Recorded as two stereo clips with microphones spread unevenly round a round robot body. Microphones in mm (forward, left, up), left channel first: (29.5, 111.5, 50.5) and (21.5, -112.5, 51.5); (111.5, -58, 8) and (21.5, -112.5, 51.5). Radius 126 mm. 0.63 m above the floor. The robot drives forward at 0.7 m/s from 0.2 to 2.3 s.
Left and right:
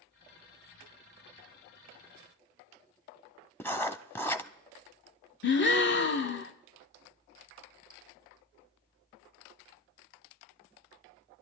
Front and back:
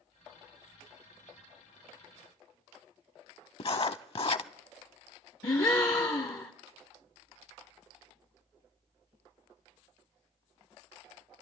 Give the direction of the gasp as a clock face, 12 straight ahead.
10 o'clock.